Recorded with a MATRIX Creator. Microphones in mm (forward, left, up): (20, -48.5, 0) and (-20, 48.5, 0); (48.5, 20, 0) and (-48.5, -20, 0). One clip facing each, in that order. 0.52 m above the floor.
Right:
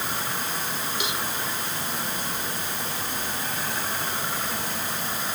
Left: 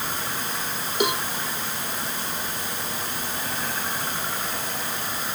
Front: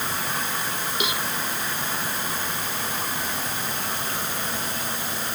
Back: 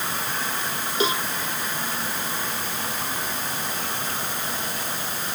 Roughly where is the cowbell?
Behind left.